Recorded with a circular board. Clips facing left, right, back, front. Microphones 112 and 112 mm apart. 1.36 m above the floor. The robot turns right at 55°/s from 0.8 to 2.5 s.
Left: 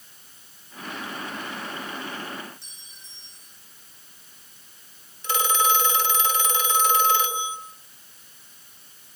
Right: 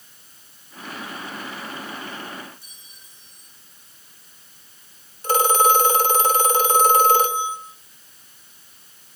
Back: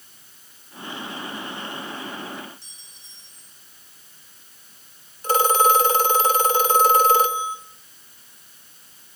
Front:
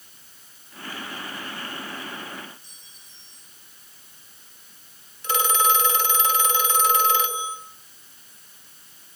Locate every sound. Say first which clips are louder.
2.6 s a clink: even, even; 175° right, 9.5 m
5.2 s a phone ringing: right 6 dB, back 5 dB; 130° right, 3 m